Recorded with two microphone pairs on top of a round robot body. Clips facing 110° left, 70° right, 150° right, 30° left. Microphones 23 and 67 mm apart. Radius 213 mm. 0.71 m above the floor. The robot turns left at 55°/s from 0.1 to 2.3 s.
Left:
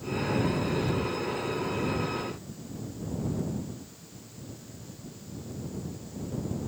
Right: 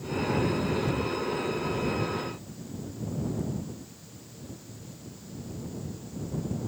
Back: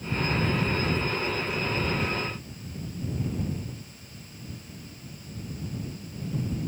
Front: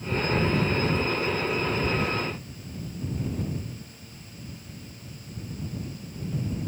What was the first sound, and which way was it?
Only background noise.